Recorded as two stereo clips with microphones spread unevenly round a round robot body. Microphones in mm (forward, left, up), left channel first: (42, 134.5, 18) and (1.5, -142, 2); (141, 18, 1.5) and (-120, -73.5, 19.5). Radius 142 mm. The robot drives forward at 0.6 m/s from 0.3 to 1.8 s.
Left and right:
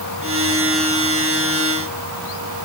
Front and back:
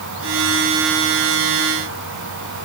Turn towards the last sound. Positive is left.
No sound to turn to.